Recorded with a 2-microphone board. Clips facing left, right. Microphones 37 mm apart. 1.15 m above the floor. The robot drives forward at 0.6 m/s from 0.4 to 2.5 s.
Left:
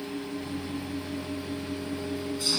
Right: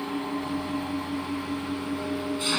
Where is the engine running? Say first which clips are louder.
Right 5 dB; 50° right (ahead or behind); by 2.6 s 40° right (ahead or behind).